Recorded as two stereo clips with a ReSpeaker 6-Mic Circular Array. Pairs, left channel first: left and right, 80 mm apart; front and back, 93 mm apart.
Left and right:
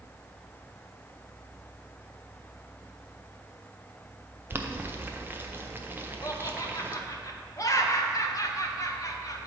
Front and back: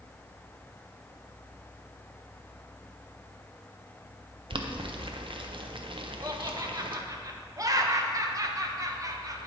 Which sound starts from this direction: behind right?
Boiling, at 4.5 s.